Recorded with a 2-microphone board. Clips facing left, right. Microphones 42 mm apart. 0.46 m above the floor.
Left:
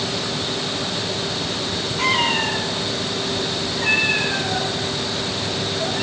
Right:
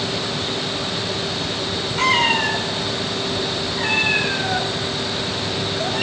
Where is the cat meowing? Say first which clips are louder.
Right 2 dB; 80° right, 9 m; by 6.0 s 75° right (ahead or behind), 11.5 m.